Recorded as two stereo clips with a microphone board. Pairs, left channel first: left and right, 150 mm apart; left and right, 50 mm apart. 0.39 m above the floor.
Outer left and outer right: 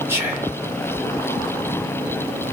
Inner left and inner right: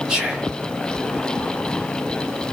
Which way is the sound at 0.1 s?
15° right (ahead or behind).